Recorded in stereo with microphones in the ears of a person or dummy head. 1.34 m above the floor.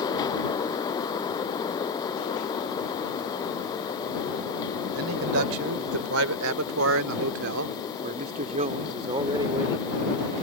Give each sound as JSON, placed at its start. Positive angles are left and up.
{"t": 4.9, "sound": "a man speaking", "side_deg": -70}